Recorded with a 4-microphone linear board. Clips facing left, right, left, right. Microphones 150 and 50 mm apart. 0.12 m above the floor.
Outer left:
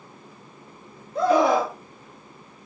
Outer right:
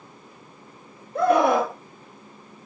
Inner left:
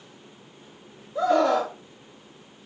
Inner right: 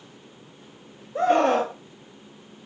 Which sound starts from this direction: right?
A scream, at 1.1 s.